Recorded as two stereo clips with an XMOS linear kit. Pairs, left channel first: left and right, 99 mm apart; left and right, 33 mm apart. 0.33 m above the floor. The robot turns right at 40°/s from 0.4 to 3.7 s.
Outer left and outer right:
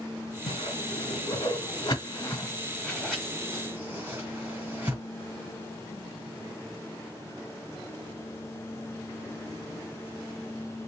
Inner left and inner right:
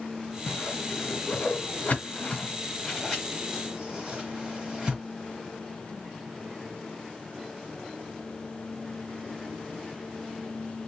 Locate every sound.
0.5 s a whoosh: 65° left (ahead or behind), 1.9 m; by 5.0 s 20° right (ahead or behind), 1.9 m